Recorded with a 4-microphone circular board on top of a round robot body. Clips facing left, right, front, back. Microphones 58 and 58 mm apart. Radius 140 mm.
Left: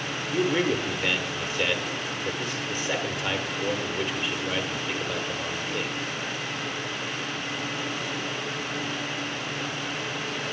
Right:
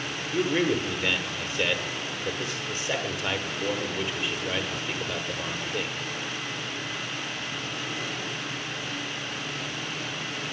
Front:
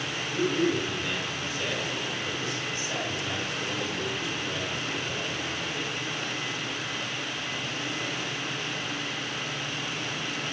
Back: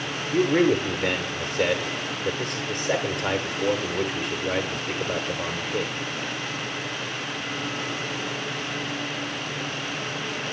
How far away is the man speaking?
About 1.6 m.